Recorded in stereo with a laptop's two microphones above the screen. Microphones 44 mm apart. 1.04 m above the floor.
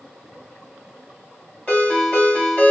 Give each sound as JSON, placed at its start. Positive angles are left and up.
{"t": 1.7, "sound": "a ringtone", "side_deg": 30, "distance_m": 1.4}